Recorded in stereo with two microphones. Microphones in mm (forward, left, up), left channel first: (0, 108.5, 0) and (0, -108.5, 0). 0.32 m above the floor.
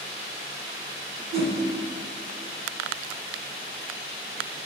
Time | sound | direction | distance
1.3 | a whoosh | 25° right (ahead or behind) | 0.5 m